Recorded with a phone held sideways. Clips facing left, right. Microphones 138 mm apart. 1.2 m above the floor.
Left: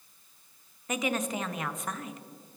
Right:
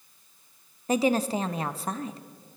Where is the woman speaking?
30° right (ahead or behind), 0.5 m.